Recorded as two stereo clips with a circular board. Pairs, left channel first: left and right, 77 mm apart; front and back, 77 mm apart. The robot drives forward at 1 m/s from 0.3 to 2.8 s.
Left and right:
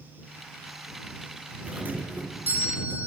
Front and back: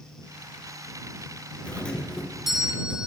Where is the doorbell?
45° right, 2 m; by 3.1 s 120° right, 1.9 m.